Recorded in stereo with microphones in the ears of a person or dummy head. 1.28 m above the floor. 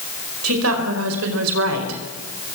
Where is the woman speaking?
85° right, 5 m; by 2.0 s 75° right (ahead or behind), 4 m.